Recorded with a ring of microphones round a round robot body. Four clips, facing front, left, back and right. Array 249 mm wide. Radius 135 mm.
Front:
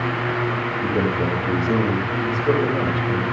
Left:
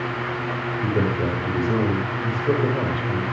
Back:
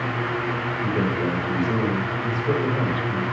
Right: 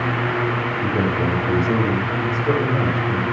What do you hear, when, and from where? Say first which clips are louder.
0.8 s a man speaking: right 1 dB, front 2 dB; 55° right, 4.5 m